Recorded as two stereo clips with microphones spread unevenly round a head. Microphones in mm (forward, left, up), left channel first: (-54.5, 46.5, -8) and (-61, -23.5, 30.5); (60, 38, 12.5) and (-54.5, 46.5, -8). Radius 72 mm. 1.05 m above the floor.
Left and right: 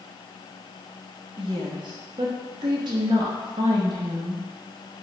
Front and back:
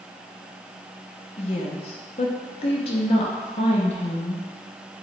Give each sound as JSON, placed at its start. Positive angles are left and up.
{"t": 1.4, "sound": "a woman speaking", "azimuth_deg": -45, "distance_m": 0.5}